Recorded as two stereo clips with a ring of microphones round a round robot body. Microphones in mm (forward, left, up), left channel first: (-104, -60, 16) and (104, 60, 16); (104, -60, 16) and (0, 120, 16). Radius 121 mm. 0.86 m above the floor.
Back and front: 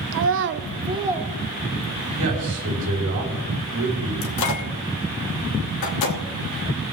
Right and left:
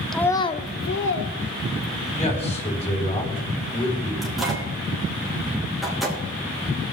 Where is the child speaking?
25° left, 0.7 m; by 2.2 s 75° right, 1.5 m.